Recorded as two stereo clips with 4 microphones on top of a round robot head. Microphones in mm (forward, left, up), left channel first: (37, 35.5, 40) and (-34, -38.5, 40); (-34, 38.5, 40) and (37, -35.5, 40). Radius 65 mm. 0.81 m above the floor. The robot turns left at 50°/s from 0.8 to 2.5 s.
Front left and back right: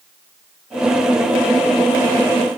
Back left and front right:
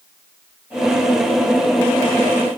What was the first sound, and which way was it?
Only background noise.